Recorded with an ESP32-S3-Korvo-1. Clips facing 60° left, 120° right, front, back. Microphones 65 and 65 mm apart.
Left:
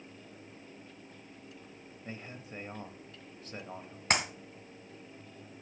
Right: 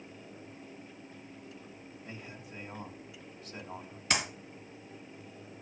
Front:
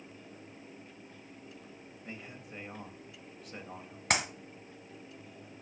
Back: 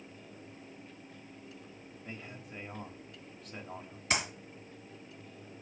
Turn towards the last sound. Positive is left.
turn(degrees=25)